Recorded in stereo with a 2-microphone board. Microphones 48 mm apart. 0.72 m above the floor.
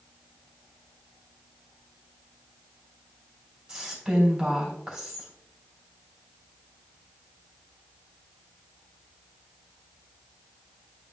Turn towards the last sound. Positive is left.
turn(degrees=-15)  # may be behind; listen again after turning